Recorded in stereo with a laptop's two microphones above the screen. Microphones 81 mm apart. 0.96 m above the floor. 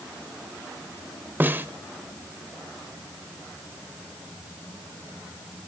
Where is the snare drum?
25° right (ahead or behind), 1.0 m.